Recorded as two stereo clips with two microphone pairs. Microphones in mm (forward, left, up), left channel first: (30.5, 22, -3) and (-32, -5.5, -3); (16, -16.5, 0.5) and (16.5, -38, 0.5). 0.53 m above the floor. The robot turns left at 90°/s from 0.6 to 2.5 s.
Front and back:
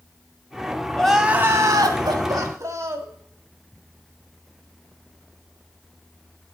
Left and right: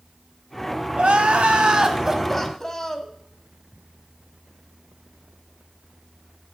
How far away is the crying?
About 1.2 m.